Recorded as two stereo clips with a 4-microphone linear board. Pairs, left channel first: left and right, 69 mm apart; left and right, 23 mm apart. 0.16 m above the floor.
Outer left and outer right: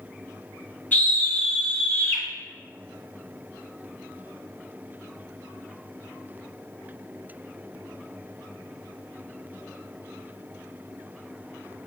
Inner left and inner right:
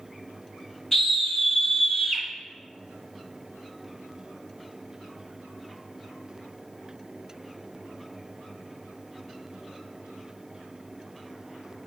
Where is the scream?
25° left (ahead or behind), 1.2 m.